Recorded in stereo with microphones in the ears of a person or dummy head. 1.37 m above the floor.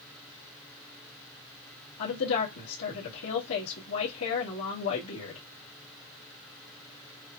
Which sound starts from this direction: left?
A woman speaking, at 2.0 s.